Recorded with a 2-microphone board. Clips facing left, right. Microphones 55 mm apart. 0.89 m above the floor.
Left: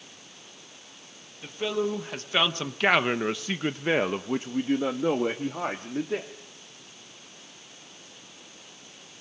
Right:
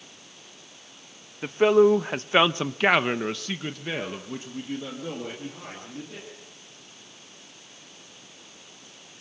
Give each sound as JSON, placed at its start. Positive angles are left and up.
{"t": 1.4, "sound": "a man speaking", "side_deg": -50, "distance_m": 1.5}